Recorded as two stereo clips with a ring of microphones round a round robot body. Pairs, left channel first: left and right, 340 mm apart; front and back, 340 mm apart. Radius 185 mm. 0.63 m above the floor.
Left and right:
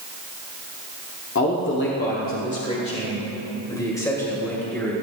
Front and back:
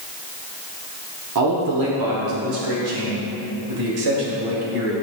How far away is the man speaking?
About 1.5 m.